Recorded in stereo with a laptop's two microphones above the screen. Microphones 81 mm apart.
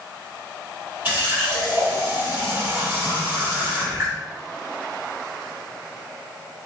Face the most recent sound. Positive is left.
turn(degrees=-20)  # may be behind; listen again after turning